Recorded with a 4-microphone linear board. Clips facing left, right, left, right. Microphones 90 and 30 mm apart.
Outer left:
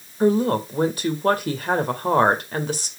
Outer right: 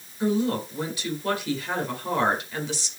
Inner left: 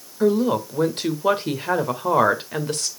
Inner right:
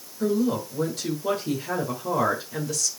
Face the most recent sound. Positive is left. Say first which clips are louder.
# outer left 6 dB, inner left 5 dB
turn(degrees=50)  # may be behind; listen again after turning